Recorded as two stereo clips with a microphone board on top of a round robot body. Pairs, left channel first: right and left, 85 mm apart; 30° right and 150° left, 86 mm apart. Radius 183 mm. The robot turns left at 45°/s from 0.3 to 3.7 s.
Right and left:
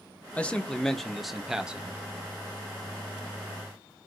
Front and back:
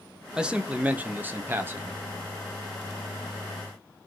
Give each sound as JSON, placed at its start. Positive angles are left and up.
{"t": 0.3, "sound": "a man speaking", "azimuth_deg": -145, "distance_m": 1.0}